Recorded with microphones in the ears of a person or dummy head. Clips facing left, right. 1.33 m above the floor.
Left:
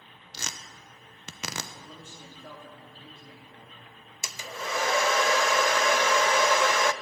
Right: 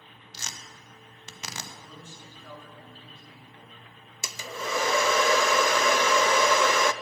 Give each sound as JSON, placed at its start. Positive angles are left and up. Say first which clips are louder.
{"t": 0.3, "sound": "tearing paper", "louder": "left 3 dB", "side_deg": 55, "distance_m": 0.8}
{"t": 1.7, "sound": "a man speaking", "louder": "even", "side_deg": 25, "distance_m": 2.5}
{"t": 4.2, "sound": "a hair dryer", "louder": "right 2 dB", "side_deg": -75, "distance_m": 0.5}